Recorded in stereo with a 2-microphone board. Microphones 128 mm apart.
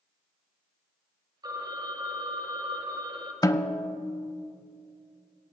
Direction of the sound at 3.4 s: 25° left (ahead or behind).